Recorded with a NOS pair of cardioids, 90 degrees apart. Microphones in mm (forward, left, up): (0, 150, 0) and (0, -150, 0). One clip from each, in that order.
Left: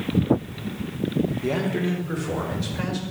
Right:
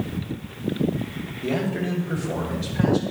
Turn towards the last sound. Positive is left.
turn(degrees=15)